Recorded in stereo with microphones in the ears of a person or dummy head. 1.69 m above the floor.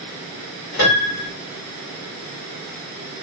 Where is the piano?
65° left (ahead or behind), 1.9 m.